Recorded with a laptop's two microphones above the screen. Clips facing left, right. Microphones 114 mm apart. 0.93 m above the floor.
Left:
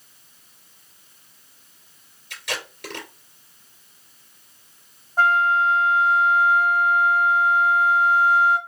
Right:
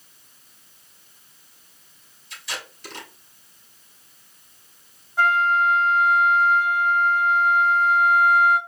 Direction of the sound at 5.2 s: 40° left (ahead or behind).